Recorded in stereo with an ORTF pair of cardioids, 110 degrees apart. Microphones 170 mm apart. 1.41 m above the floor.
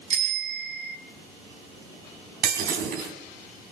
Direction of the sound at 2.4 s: 60° right.